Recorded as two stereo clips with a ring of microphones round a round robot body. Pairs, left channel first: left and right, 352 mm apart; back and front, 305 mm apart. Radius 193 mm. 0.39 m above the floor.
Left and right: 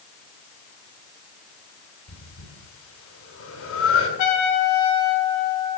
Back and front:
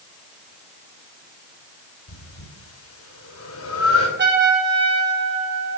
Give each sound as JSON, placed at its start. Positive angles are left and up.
{"t": 2.1, "sound": "breathing", "azimuth_deg": 140, "distance_m": 2.5}
{"t": 4.2, "sound": "a trumpet", "azimuth_deg": 55, "distance_m": 3.0}